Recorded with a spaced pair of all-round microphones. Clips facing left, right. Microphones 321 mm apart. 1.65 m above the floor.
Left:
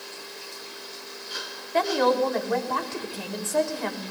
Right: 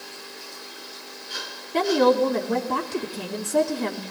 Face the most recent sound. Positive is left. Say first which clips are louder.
# right 4 dB
turn(degrees=-45)  # may be behind; listen again after turning